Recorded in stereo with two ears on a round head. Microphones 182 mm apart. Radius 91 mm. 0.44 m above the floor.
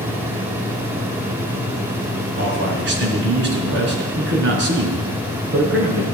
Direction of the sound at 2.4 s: 60° right (ahead or behind).